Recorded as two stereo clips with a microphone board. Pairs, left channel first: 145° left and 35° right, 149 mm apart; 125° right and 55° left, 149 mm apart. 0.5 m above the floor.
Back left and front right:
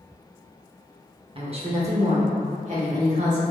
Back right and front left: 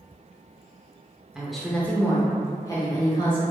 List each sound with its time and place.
1.4 s a woman speaking: 30° right, 0.8 m; by 3.4 s 70° right, 1.5 m